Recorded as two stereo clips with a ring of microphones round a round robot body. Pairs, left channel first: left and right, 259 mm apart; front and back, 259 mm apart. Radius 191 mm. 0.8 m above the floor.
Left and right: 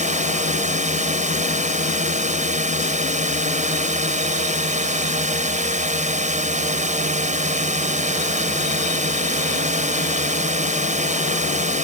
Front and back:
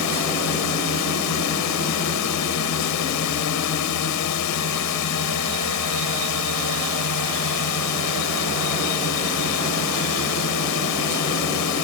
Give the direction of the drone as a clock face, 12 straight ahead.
1 o'clock.